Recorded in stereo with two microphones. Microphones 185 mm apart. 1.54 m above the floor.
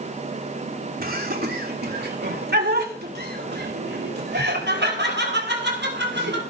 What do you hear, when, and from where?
1.0 s laughter: 55° right (ahead or behind), 3 m; by 6.4 s 75° right (ahead or behind), 6.5 m